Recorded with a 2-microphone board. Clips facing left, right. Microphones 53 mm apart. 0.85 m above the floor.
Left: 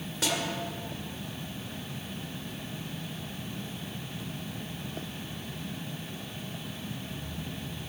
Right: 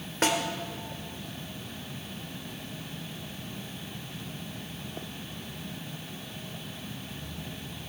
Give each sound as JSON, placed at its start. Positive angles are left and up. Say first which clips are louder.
{"t": 0.2, "sound": "a snare drum", "louder": "right 5 dB", "side_deg": -45, "distance_m": 1.7}